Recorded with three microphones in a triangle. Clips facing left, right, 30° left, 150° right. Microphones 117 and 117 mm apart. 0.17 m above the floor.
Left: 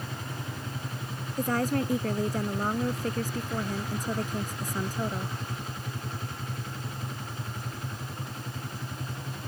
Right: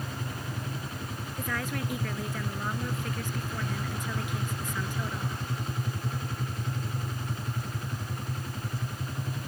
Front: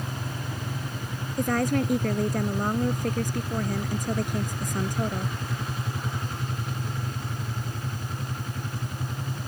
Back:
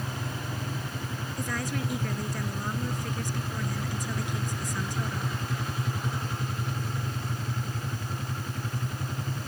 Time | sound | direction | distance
1.4 | a woman speaking | 50° left | ?